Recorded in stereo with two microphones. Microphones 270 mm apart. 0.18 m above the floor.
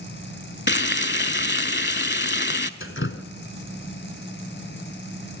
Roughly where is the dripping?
Left.